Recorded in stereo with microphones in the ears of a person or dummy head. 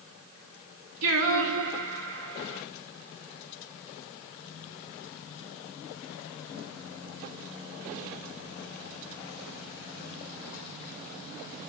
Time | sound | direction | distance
1.0 | singing | 75° right (ahead or behind) | 1.4 m